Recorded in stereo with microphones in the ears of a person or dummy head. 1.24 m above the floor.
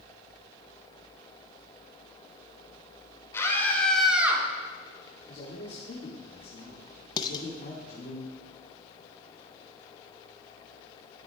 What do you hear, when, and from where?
3.3 s a scream: 15° left (ahead or behind), 2 m; by 4.4 s 15° right (ahead or behind), 1.5 m
5.3 s a man speaking: 40° left (ahead or behind), 1.9 m
7.2 s dishes clattering: 25° left (ahead or behind), 0.7 m